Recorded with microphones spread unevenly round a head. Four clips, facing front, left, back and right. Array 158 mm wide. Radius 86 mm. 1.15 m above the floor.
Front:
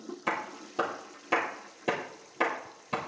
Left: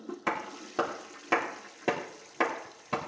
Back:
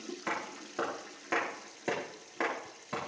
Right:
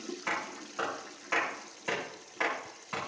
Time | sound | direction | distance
0.3 | a clap | 70° left | 2.5 m